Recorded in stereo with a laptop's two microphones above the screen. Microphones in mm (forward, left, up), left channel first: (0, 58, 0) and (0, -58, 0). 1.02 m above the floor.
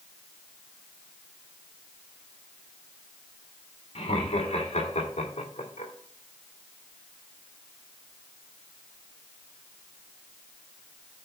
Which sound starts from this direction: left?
Laughter, at 4.0 s.